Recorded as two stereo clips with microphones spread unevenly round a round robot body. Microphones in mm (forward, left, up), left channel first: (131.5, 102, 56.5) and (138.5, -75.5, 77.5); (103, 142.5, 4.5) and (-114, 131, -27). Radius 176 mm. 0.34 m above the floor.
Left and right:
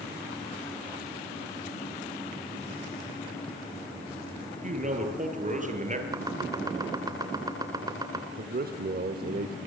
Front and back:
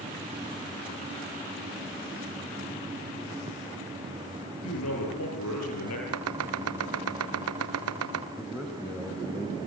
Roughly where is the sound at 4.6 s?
Ahead right.